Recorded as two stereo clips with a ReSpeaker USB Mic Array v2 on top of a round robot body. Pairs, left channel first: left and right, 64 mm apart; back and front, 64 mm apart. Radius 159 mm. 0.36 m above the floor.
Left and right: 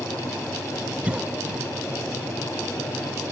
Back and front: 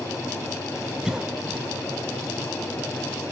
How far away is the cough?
About 0.9 m.